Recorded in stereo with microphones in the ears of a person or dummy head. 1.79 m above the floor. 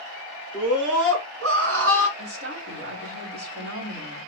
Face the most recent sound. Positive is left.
turn(degrees=-55)  # may be behind; listen again after turning